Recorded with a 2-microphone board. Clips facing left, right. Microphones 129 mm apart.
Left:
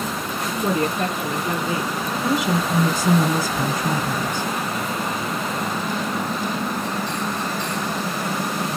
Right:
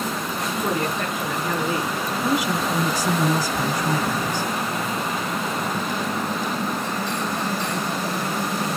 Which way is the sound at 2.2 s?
25° left (ahead or behind).